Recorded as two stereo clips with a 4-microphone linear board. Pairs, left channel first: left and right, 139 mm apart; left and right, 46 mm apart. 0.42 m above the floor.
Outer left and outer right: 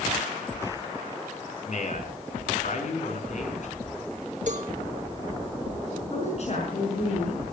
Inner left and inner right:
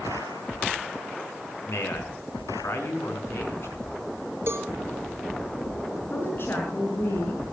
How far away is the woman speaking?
About 5.5 m.